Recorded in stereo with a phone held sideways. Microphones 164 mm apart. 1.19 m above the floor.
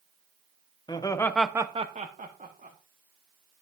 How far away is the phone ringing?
I don't hear a phone ringing.